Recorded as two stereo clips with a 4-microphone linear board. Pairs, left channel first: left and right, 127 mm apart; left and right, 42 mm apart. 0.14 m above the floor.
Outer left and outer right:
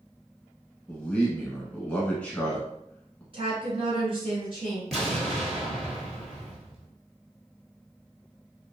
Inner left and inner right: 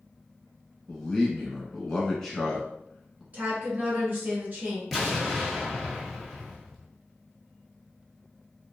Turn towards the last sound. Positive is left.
turn(degrees=0)  # may be behind; listen again after turning